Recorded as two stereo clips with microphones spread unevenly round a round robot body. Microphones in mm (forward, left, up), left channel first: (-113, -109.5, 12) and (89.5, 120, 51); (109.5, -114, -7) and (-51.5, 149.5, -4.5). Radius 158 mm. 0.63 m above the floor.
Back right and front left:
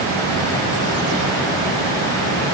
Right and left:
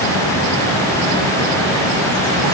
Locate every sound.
Only background noise.